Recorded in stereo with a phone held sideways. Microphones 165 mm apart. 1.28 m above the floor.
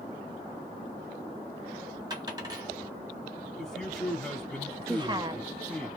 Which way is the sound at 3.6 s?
5° left (ahead or behind).